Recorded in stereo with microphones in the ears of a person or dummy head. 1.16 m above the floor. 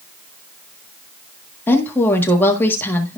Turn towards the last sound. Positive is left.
turn(degrees=15)  # may be behind; listen again after turning